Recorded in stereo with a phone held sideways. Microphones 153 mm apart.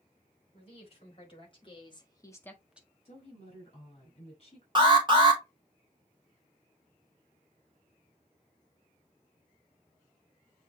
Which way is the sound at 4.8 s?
35° right (ahead or behind).